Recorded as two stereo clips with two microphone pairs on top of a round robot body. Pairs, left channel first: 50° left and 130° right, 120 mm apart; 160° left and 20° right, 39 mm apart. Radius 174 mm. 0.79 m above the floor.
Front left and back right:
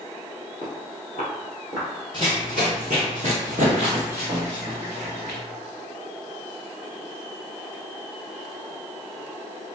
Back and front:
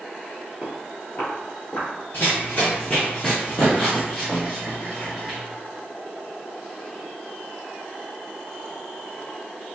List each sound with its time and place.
0.6 s footsteps: 80° right, 0.8 m; by 1.9 s 155° right, 1.4 m
2.1 s running footsteps: 155° right, 0.8 m; by 5.4 s 100° right, 2 m